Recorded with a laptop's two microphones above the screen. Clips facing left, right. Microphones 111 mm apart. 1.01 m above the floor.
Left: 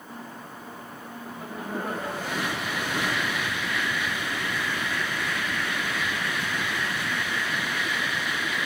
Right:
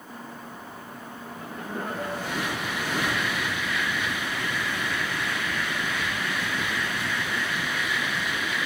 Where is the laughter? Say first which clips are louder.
Left 2 dB; 10° left (ahead or behind), 1.3 m.